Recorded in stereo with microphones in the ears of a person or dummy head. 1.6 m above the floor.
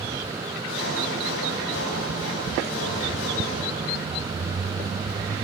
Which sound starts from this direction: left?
Sawing, at 0.7 s.